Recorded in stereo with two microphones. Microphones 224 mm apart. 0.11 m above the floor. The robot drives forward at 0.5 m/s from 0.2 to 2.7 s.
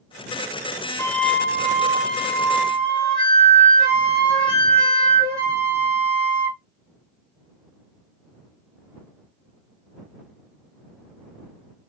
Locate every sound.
1.0 s a flute: 10° left (ahead or behind), 0.6 m; by 6.6 s 5° left (ahead or behind), 1.4 m